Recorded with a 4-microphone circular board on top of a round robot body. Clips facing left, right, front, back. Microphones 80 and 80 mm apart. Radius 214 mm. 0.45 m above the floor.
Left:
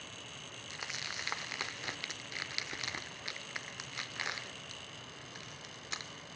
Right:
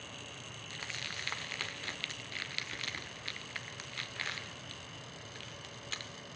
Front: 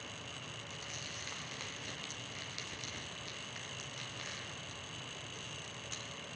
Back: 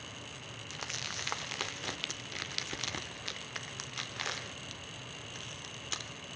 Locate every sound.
0.7 s crumpling: 160° left, 0.9 m